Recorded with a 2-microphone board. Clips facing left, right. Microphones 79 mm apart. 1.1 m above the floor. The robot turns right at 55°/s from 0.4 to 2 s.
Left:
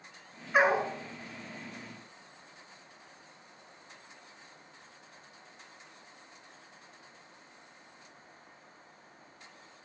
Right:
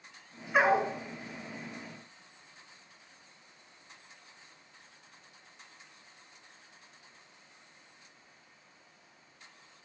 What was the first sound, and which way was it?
A dog barking, centre (ahead or behind).